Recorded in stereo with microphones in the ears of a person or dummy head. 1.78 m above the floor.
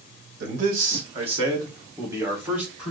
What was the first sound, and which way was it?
A man speaking, 55° right (ahead or behind).